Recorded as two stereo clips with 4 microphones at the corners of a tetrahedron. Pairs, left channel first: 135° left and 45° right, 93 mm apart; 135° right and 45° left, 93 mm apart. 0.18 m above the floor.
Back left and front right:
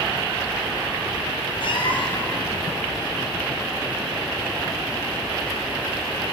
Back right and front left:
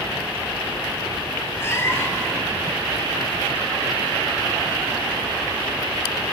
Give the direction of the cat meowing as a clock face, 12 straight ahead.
7 o'clock.